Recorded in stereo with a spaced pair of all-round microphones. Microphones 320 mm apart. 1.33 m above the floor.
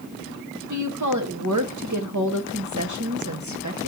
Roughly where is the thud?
No thud in this recording.